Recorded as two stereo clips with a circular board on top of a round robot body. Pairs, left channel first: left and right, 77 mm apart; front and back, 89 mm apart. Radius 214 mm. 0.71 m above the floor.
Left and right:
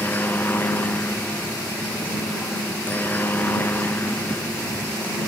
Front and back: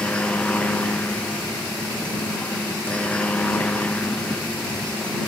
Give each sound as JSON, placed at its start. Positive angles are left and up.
{"t": 0.0, "sound": "a helicopter", "azimuth_deg": 60}